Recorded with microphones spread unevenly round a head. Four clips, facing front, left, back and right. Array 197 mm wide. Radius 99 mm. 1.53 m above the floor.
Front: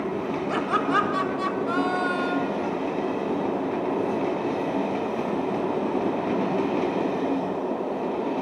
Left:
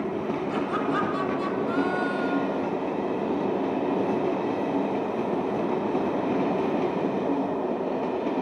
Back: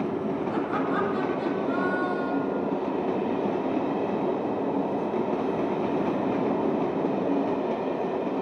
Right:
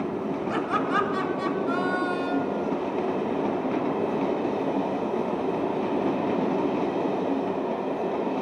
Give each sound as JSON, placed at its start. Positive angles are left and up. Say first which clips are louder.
{"t": 0.5, "sound": "laughter", "louder": "right 2 dB, front 5 dB", "azimuth_deg": -20, "distance_m": 7.0}